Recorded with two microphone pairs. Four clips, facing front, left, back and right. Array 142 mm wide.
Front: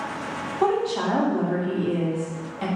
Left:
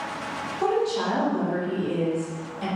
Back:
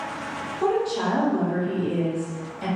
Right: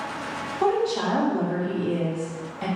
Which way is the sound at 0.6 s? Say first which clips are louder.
Right 1 dB, front 1 dB; 25° right.